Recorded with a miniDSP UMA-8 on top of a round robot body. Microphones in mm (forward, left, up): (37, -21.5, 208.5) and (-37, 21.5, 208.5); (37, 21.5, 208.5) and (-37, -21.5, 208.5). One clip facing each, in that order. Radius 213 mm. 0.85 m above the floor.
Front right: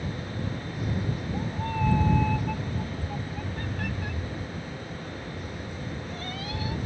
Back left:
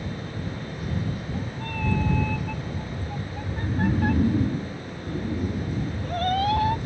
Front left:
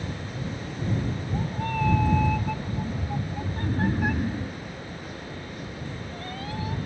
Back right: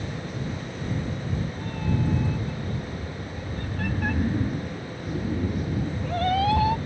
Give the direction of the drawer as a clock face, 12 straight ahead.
I don't hear a drawer.